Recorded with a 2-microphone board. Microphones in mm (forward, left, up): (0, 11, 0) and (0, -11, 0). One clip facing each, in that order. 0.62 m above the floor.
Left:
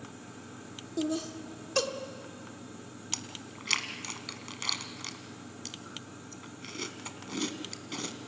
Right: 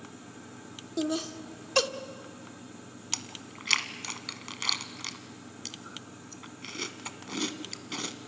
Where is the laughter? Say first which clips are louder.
Right 1 dB; 30° right (ahead or behind), 1.2 m.